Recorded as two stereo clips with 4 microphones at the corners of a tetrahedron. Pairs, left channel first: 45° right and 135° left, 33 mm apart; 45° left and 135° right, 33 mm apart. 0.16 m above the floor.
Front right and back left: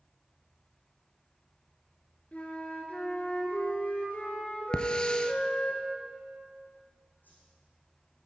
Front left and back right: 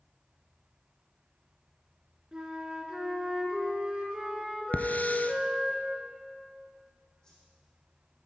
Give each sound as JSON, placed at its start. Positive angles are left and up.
{"t": 2.3, "sound": "a flute", "azimuth_deg": -70, "distance_m": 2.0}
{"t": 4.7, "sound": "a hiss", "azimuth_deg": 15, "distance_m": 0.8}
{"t": 7.2, "sound": "a whoosh", "azimuth_deg": -20, "distance_m": 6.0}